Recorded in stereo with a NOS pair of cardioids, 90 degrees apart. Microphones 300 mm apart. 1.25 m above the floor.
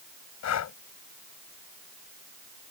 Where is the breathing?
60° left.